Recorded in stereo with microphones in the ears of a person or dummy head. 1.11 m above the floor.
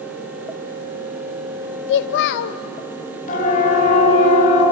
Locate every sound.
1.9 s a child speaking: 55° left (ahead or behind), 0.5 m
3.3 s a siren: 40° left (ahead or behind), 6.5 m; by 4.6 s 30° left (ahead or behind), 6.5 m